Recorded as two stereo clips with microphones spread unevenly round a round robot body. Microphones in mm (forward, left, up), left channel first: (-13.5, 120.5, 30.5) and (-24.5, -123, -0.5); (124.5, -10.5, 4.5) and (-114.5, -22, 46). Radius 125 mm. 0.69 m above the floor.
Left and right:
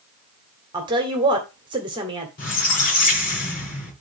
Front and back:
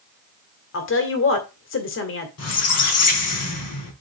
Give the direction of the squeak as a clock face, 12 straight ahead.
11 o'clock.